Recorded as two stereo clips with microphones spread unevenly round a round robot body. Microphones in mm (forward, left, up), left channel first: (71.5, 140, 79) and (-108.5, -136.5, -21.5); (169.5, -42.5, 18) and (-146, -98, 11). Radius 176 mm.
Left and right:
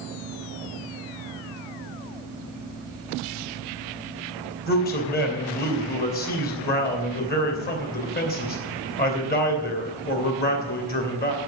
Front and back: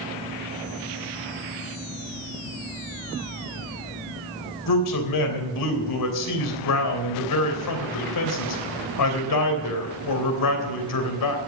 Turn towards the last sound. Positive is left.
turn(degrees=-10)